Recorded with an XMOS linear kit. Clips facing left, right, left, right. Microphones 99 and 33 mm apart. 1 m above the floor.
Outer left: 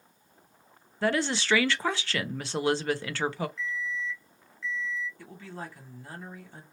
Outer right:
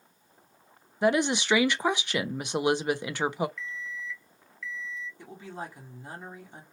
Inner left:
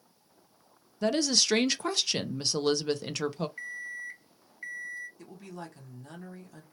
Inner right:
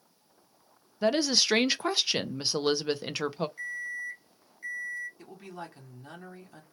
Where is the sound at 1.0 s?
15° right (ahead or behind), 0.5 m.